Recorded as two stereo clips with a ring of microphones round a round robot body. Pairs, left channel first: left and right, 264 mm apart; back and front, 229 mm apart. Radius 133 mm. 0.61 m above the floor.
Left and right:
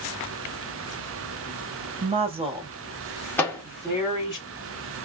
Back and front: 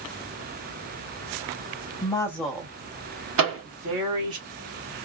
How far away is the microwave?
About 1.3 m.